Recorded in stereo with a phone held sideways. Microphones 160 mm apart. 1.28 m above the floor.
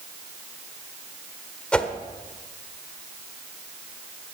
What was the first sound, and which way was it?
A whoosh, 5° left (ahead or behind).